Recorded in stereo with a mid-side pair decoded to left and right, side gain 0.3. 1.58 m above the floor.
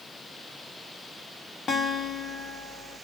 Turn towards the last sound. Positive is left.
turn(degrees=60)